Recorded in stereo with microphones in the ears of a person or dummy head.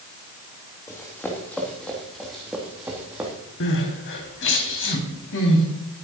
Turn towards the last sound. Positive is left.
turn(degrees=60)  # may be behind; listen again after turning